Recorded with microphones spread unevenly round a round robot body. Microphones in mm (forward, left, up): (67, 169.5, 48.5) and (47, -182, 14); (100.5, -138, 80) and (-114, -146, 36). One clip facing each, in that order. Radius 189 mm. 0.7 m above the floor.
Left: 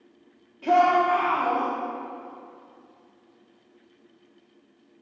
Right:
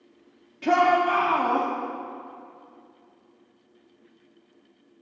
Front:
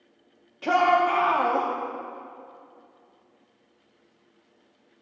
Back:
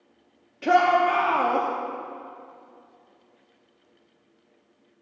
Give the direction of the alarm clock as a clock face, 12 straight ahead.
I don't hear an alarm clock.